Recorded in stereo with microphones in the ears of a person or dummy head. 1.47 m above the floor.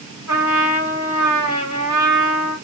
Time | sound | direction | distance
0.3 | a trumpet | 15° right (ahead or behind) | 2.5 m